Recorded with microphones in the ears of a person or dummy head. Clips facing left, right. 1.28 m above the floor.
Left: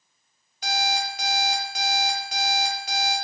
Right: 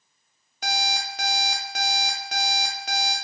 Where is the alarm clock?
45° right (ahead or behind), 0.8 m.